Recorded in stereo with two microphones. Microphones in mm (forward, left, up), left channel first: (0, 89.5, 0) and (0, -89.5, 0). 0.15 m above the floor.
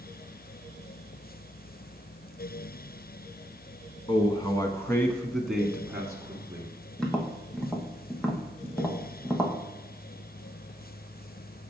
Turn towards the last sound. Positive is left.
turn(degrees=5)  # may be behind; listen again after turning